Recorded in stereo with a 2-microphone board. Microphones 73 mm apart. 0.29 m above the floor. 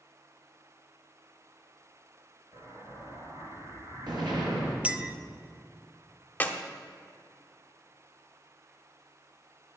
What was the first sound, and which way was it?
An explosion, 75° right (ahead or behind).